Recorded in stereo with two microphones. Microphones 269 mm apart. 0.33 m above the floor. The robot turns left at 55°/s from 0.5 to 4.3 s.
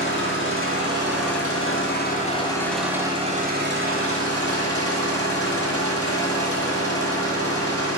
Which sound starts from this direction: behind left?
An engine running, at 0.0 s.